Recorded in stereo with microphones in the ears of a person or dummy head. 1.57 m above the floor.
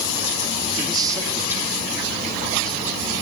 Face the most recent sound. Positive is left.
turn(degrees=5)  # may be behind; listen again after turning